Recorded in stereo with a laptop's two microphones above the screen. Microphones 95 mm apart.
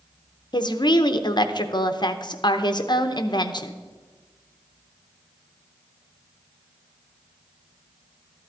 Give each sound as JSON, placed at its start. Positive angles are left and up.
{"t": 0.5, "sound": "a woman speaking", "side_deg": 50, "distance_m": 0.7}